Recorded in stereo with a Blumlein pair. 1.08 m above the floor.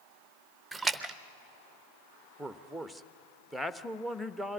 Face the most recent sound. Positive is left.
turn(degrees=0)